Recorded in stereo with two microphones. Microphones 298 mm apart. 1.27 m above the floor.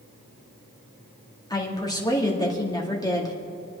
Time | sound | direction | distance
1.5 | a woman speaking | 10° left (ahead or behind) | 2 m